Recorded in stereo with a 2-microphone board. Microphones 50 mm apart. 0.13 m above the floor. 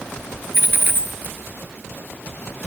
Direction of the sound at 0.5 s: 40° right (ahead or behind).